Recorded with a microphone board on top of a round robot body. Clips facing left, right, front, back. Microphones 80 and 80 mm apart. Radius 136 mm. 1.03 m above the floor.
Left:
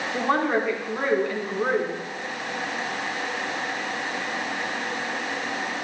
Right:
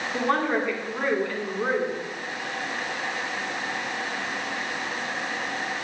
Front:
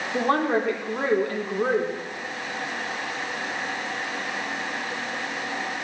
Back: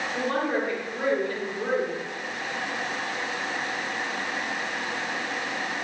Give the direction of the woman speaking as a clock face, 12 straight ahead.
12 o'clock.